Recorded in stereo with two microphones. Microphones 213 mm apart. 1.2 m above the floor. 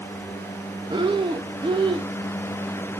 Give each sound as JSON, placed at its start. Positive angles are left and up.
{"t": 0.9, "sound": "breathing", "side_deg": -25, "distance_m": 0.6}